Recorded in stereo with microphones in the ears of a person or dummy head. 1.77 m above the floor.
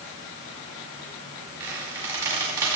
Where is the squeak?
15° right (ahead or behind), 5 m.